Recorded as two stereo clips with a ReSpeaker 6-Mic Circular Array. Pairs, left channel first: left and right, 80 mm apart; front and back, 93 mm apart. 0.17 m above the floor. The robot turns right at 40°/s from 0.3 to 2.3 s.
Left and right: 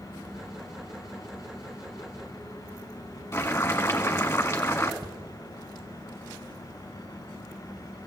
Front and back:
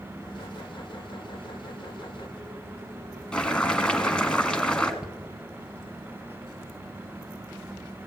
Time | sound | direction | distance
3.3 | boiling | 70° left | 1.4 m
5.0 | a cupboard door | 100° right | 1.1 m